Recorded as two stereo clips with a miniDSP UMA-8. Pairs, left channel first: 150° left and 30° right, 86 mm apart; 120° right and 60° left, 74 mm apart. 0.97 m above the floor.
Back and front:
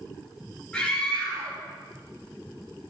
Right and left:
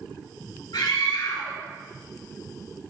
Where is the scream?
130° right, 4 m.